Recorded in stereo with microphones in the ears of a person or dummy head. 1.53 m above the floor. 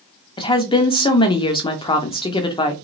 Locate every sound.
0.4 s a woman speaking: 20° left (ahead or behind), 0.7 m